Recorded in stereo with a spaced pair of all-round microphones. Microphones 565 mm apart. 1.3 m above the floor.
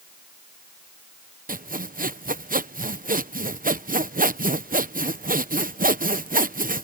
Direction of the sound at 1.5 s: 15° right (ahead or behind).